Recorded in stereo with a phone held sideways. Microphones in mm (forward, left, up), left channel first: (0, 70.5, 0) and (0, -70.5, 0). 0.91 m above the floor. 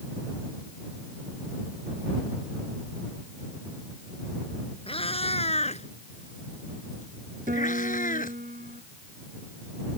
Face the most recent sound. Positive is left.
turn(degrees=-80)